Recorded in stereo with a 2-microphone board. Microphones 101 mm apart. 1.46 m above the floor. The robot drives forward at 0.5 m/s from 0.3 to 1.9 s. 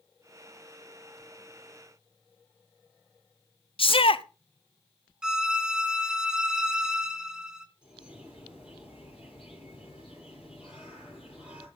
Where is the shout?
65° left (ahead or behind), 0.6 m.